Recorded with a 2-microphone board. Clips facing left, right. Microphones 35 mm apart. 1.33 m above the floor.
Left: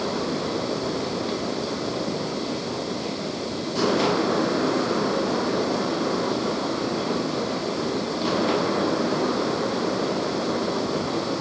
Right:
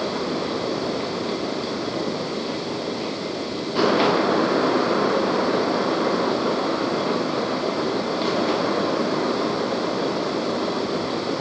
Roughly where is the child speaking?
No child speaking in this recording.